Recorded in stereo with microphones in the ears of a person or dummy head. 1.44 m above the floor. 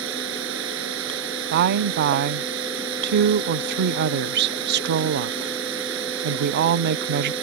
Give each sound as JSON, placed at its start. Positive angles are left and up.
{"t": 0.0, "sound": "running water", "side_deg": -70}
{"t": 1.5, "sound": "a woman speaking", "side_deg": -60}